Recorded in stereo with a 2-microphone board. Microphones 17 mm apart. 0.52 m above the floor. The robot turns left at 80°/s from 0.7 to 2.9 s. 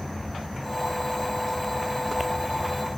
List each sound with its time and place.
0.0 s an insect: 150° left, 1.8 m; by 3.0 s 30° right, 1.8 m